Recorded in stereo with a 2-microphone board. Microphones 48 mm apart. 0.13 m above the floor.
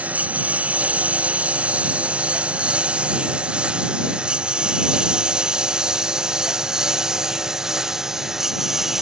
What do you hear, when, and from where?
0.0 s a lawn mower: 30° right (ahead or behind); by 9.0 s 10° right (ahead or behind)